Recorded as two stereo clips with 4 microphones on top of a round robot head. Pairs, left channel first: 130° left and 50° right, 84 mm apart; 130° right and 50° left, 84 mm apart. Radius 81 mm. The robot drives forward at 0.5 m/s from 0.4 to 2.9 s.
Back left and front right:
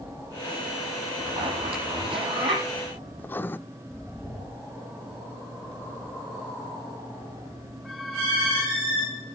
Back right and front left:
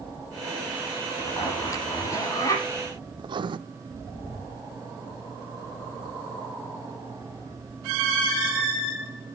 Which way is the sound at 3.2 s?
60° left.